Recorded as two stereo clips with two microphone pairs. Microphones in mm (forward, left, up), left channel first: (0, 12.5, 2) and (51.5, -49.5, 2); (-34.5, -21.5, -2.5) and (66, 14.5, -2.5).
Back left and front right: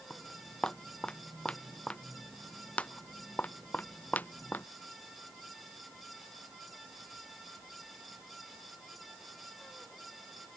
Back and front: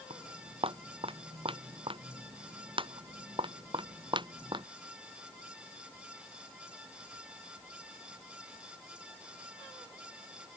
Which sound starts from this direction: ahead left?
Footsteps, at 0.1 s.